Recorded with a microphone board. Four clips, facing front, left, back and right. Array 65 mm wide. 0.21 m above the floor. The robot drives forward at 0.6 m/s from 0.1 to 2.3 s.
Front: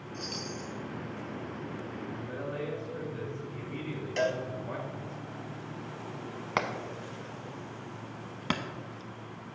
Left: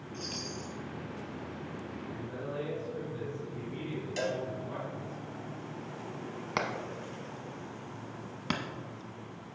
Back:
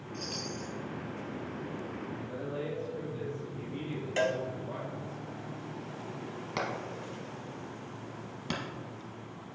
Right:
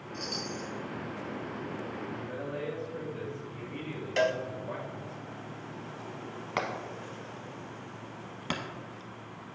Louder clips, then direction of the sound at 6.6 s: Right 1 dB, front 3 dB; 10° left.